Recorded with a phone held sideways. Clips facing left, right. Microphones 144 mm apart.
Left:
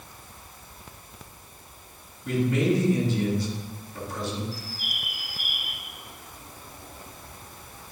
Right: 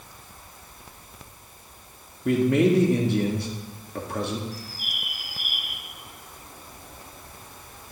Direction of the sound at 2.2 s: 60° right (ahead or behind).